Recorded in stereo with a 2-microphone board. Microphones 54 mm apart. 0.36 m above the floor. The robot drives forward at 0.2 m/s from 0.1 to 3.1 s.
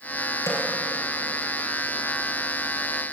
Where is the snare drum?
80° left, 3.5 m; by 0.6 s 75° left (ahead or behind), 3.5 m.